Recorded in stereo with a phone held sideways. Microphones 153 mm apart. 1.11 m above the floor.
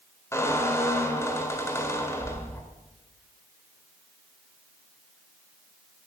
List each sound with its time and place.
0.3 s a squeak: 20° left (ahead or behind), 2 m